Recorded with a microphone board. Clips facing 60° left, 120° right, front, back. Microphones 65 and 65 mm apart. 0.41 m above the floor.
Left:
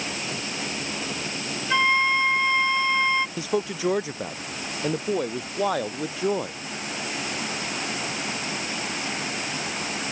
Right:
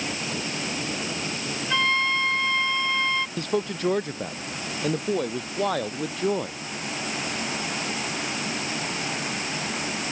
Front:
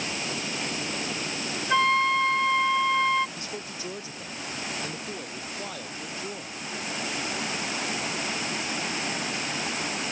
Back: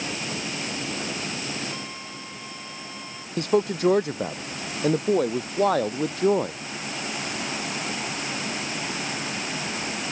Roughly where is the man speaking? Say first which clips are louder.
Even, back 15 dB; behind left.